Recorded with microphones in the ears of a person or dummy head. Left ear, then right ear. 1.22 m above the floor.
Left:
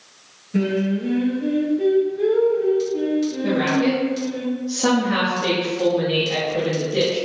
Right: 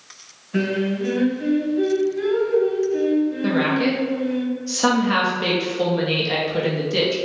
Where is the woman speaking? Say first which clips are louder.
Left 3 dB; 55° right (ahead or behind), 0.9 m.